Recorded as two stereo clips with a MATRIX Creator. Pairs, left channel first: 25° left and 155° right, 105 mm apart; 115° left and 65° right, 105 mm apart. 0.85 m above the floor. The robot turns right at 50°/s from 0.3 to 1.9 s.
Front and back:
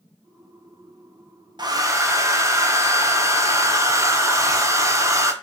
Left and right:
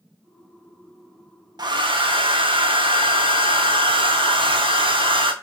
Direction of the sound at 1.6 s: 115° right.